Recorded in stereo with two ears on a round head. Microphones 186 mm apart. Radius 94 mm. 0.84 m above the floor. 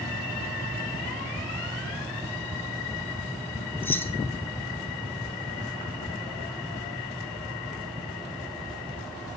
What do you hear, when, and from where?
3.8 s keys jangling: 10° left (ahead or behind), 0.9 m